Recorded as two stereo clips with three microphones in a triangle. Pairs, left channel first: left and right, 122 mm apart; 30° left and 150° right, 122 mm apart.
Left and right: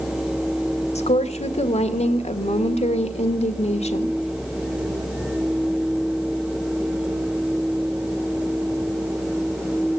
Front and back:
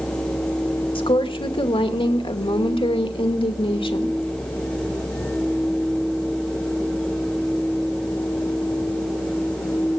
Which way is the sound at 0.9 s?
70° left.